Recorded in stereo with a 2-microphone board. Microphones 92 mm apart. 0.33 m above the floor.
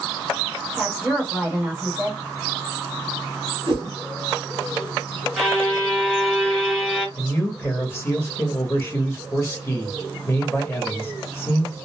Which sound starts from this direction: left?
A man speaking, at 7.2 s.